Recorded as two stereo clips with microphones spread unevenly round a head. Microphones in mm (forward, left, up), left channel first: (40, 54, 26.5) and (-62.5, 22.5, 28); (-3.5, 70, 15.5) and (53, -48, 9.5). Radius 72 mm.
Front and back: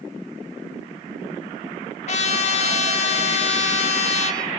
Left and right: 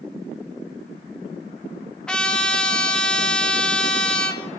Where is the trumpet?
35° left, 1.4 m.